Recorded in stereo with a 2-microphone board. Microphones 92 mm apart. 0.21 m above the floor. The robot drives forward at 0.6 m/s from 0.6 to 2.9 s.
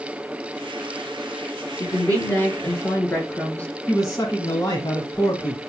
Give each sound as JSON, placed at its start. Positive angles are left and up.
{"t": 1.8, "sound": "a woman speaking", "side_deg": 25, "distance_m": 3.0}
{"t": 3.9, "sound": "a man speaking", "side_deg": 35, "distance_m": 1.6}